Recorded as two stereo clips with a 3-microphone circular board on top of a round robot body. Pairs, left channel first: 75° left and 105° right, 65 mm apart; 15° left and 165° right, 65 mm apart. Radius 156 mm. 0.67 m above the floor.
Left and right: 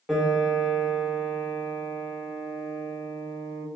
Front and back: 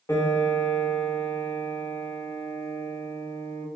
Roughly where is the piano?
Ahead.